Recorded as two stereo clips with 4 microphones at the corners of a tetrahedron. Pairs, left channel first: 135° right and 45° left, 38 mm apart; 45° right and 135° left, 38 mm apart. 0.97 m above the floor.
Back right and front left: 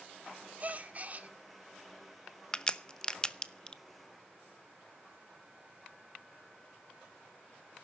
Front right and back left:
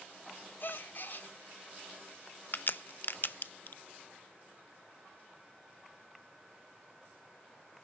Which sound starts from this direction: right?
A crack, at 2.5 s.